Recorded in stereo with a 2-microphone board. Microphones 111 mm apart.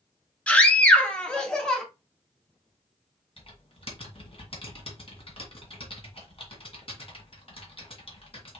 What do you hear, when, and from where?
0.5 s a scream: 10° left (ahead or behind), 1.1 m; by 1.8 s 5° left (ahead or behind), 1.7 m
3.4 s typing on a keyboard: 55° left (ahead or behind), 1.9 m